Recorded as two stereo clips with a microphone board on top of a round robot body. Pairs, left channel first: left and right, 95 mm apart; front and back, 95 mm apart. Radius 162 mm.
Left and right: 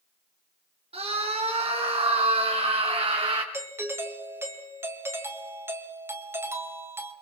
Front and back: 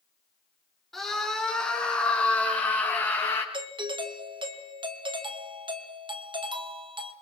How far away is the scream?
About 5.5 m.